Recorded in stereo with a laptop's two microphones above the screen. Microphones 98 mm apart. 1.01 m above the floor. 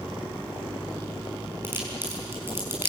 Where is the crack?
20° right (ahead or behind), 6 m.